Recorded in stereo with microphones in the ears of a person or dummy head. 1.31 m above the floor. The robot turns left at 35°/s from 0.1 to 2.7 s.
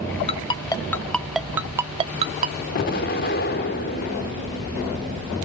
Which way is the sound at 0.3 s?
30° left (ahead or behind).